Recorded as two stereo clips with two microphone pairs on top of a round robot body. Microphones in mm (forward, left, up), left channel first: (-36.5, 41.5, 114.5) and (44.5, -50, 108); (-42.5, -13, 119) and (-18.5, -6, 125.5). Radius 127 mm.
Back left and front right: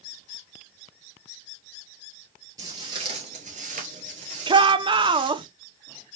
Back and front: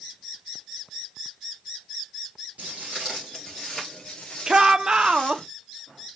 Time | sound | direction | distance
2.6 | footsteps | 15° left | 1.1 m
4.5 | a shout | 45° right | 0.9 m